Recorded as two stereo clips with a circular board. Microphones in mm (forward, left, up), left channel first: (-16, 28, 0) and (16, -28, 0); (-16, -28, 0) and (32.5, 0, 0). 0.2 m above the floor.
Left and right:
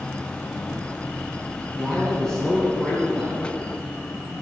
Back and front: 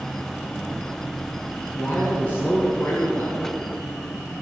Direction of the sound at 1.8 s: 165° right.